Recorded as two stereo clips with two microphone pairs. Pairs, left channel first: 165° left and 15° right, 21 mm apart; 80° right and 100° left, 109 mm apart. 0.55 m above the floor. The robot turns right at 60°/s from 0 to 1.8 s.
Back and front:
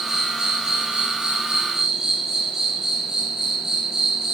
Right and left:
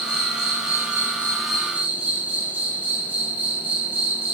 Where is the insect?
80° right, 2.5 m; by 4.4 s 30° left, 2.5 m.